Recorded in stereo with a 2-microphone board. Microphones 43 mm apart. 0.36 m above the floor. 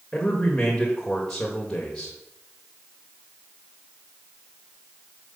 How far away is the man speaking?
About 1.3 m.